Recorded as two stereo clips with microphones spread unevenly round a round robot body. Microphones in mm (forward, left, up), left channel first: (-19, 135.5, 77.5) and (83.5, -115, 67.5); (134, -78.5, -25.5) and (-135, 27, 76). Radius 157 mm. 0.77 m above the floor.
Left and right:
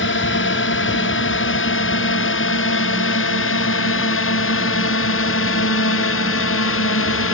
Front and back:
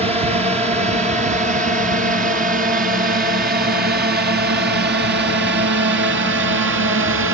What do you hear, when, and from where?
0.0 s a drone: 80° left; by 7.3 s 105° left